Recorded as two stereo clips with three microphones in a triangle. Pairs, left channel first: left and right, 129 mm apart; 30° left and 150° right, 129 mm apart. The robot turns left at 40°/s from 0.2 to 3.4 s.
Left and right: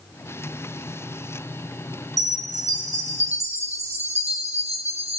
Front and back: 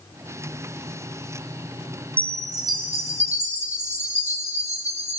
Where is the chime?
75° right, 0.6 m; by 5.2 s 125° right, 0.6 m.